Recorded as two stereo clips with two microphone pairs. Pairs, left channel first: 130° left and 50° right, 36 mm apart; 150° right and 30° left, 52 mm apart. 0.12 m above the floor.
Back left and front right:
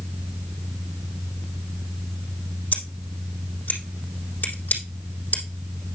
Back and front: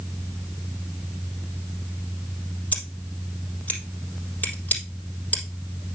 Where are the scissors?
155° left, 4 m.